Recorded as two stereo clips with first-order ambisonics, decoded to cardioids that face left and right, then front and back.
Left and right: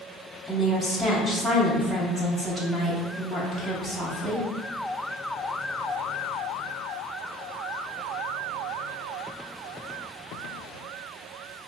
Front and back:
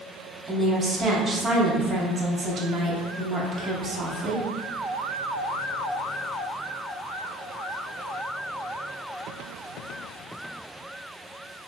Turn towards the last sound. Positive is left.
turn(degrees=-150)